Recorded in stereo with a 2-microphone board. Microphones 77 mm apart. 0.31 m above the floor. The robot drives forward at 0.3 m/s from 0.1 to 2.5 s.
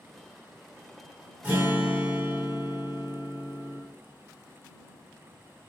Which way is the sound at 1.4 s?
25° right (ahead or behind).